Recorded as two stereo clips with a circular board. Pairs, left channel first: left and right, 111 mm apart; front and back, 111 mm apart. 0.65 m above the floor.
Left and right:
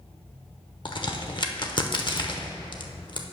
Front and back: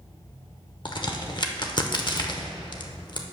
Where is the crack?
45° left, 0.8 m.